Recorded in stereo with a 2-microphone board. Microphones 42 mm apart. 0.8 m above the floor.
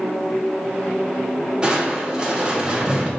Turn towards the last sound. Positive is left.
turn(degrees=-20)  # may be behind; listen again after turning